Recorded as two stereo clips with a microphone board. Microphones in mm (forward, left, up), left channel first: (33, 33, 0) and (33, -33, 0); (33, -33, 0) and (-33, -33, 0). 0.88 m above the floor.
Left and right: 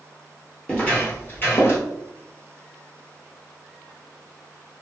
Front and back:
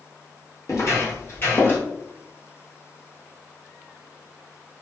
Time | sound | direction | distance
0.7 | footsteps | 20° left | 1.4 m